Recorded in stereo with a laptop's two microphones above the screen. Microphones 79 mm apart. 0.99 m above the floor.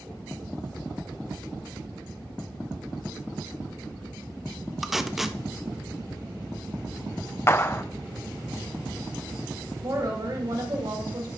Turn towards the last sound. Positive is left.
turn(degrees=-55)  # may be behind; listen again after turning